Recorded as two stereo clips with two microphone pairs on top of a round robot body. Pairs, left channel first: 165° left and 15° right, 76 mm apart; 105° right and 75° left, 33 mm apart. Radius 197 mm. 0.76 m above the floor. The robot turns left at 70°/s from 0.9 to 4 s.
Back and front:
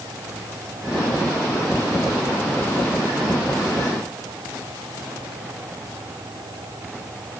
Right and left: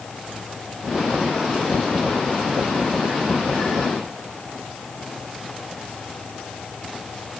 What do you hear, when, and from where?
Only background noise.